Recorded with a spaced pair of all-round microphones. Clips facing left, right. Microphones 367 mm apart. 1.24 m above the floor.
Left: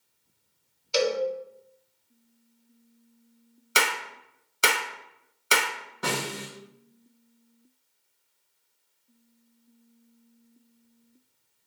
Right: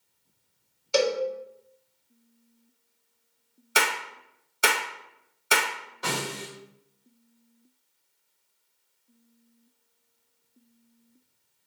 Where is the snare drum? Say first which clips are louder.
Left 1 dB; 65° left (ahead or behind), 1.7 m.